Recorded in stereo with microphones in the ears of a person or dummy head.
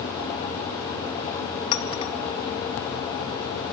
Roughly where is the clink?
Left.